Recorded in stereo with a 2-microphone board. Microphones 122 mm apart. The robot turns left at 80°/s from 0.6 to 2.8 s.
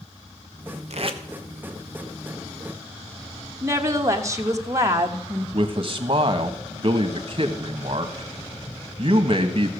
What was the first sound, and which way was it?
Tape being pulled, 60° right (ahead or behind).